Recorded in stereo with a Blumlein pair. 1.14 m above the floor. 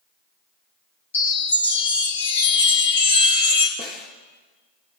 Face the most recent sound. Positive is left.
turn(degrees=35)